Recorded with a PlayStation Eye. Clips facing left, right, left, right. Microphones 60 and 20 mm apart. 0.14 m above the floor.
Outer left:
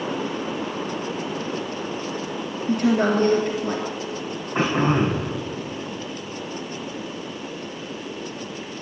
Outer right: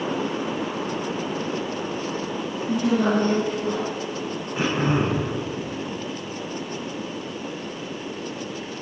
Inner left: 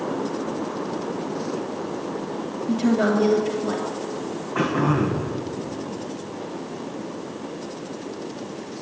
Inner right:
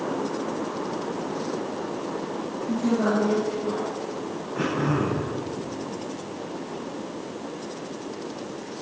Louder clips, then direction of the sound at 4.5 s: Outer left 2 dB, inner left 4 dB; 45° left (ahead or behind).